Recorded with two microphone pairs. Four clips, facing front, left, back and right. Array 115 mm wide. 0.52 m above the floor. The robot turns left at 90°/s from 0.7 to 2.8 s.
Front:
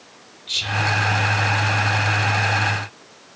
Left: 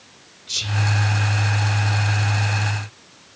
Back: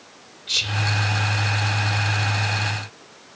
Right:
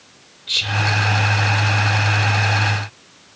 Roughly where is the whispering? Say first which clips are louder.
Right 4 dB, front 4 dB; behind right.